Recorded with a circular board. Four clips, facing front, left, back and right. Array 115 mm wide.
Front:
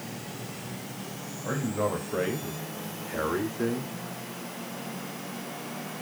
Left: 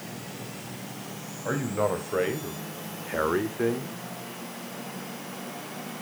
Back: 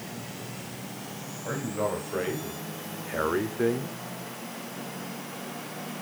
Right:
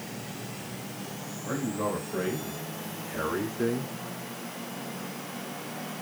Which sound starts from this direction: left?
A man speaking, at 1.4 s.